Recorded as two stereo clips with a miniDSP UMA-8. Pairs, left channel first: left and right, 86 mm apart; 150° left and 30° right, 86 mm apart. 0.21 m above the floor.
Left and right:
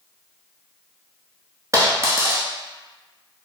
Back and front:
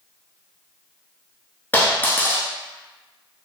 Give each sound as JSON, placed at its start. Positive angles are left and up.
{"t": 1.7, "sound": "a dropped coin", "azimuth_deg": -145, "distance_m": 0.8}